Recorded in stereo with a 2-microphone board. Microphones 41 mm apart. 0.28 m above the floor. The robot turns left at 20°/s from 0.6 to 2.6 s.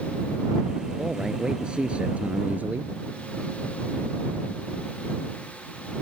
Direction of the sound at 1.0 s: 10° right.